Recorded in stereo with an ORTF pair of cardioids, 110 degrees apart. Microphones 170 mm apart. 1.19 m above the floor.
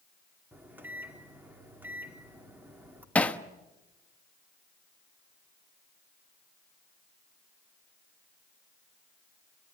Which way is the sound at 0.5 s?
10° right.